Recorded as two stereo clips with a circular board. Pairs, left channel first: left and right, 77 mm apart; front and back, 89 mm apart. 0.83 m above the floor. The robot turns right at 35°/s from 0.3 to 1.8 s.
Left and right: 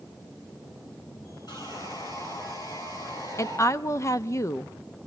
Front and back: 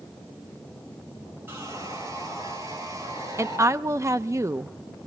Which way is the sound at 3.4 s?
130° left.